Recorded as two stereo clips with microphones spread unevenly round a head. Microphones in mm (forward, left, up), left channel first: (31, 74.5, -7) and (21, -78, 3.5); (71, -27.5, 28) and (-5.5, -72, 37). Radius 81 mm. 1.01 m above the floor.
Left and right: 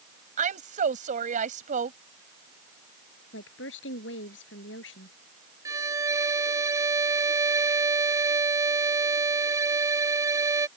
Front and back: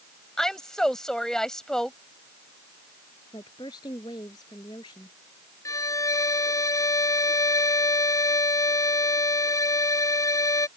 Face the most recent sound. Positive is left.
turn(degrees=-25)